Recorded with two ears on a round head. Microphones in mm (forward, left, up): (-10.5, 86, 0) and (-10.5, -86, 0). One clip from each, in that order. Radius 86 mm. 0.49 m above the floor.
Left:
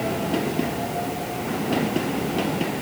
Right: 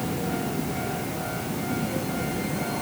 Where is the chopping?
No chopping in this recording.